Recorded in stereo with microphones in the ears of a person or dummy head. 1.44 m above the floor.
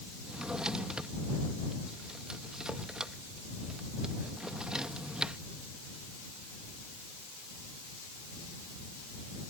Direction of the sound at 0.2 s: Centre (ahead or behind).